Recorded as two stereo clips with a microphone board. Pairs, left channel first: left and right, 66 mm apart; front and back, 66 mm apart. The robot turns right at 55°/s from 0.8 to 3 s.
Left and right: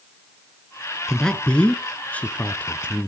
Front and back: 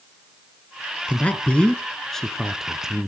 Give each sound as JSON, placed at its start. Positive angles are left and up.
{"t": 1.1, "sound": "a man speaking", "azimuth_deg": 15, "distance_m": 1.1}